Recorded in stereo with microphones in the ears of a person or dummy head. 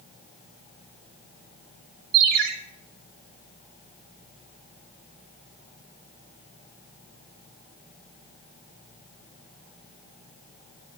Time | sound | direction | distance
2.1 | a ringtone | 45° right (ahead or behind) | 0.9 m